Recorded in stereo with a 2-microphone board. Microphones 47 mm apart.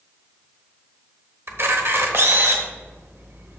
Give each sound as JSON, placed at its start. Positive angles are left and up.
{"t": 1.5, "sound": "a camera shutter", "side_deg": -55, "distance_m": 1.1}